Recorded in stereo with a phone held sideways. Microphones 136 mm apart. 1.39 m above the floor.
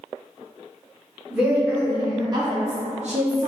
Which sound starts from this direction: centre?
A woman speaking, at 1.3 s.